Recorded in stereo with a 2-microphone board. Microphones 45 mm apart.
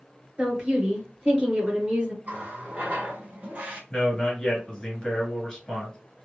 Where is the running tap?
35° right (ahead or behind), 1.1 m.